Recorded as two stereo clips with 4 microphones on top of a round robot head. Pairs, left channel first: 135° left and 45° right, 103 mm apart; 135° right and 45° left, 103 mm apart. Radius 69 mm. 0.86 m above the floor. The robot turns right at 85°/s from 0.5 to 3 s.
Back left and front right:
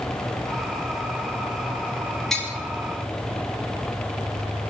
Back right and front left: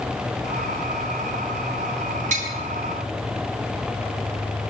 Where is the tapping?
45° left, 5.5 m; by 2.5 s 65° left, 5.5 m.